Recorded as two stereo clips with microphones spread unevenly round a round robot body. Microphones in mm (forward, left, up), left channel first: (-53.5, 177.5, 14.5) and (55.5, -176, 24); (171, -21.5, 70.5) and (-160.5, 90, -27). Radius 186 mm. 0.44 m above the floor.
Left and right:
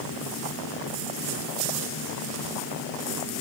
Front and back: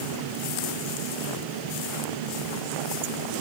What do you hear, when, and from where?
Only background noise.